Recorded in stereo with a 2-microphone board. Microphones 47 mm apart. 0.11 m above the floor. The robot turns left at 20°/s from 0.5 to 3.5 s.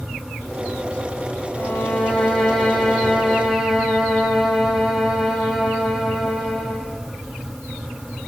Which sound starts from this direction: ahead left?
A violin, at 1.6 s.